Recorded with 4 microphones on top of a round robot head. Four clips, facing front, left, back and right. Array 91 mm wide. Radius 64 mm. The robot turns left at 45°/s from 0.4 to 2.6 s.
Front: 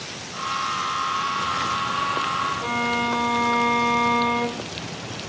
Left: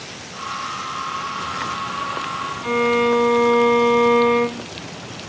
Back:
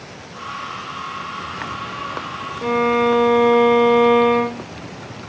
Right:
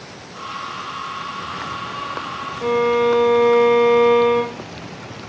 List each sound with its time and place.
2.6 s a violin: 130° right, 0.7 m